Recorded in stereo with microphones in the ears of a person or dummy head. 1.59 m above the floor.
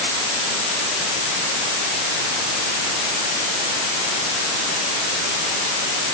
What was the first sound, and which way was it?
Only background noise.